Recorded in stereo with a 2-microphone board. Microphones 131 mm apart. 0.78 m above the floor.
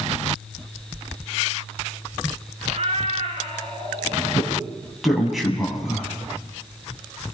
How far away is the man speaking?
About 6.5 m.